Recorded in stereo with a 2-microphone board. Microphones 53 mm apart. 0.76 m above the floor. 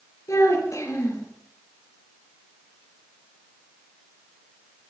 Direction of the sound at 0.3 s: 85° left.